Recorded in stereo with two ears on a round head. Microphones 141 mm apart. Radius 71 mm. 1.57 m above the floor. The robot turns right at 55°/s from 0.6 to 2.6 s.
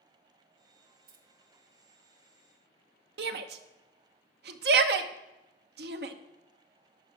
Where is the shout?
70° right (ahead or behind), 0.9 m.